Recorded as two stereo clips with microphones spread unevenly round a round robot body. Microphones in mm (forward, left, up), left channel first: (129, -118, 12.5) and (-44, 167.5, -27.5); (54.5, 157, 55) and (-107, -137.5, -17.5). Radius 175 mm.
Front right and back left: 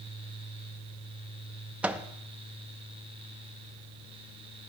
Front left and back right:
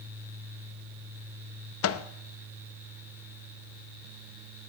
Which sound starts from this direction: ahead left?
A microwave, at 1.8 s.